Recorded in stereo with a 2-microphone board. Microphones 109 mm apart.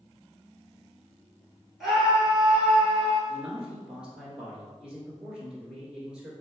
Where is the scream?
Centre (ahead or behind), 1.3 m.